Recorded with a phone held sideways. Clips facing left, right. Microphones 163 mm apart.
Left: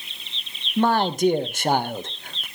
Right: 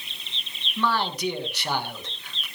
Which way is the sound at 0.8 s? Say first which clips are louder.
Left 6 dB; 45° left (ahead or behind).